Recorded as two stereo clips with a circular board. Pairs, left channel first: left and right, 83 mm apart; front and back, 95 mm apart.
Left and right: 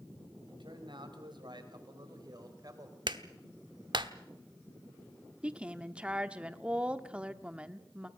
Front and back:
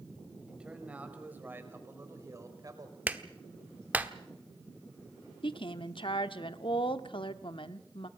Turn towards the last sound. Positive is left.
turn(degrees=-15)